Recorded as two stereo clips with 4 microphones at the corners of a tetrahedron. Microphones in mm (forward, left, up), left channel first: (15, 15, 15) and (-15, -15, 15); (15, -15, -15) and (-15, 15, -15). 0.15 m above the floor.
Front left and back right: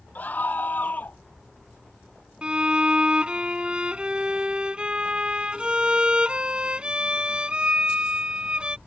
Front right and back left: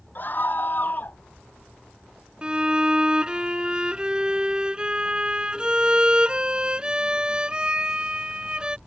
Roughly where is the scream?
Ahead.